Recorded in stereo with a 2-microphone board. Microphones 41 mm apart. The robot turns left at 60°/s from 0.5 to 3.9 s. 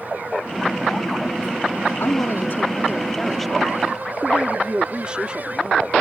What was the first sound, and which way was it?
A woman speaking, 90° left.